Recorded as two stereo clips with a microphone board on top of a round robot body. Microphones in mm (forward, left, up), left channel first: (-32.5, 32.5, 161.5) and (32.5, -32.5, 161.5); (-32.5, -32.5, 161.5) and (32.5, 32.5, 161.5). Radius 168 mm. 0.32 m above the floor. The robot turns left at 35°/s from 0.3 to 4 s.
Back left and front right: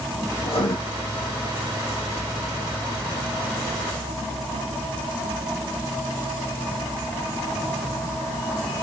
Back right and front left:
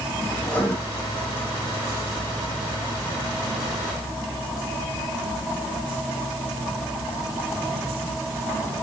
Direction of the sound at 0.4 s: 155° left.